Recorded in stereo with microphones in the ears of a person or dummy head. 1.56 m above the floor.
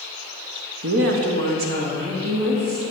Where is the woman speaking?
65° right (ahead or behind), 0.7 m; by 2.8 s 35° right (ahead or behind), 2 m.